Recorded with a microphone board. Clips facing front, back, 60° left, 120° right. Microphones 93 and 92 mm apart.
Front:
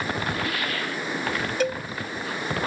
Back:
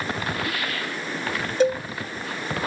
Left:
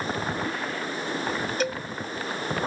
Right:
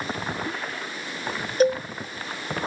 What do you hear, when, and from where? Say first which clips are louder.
1.6 s a cowbell: back 7 dB, right 13 dB; 135° right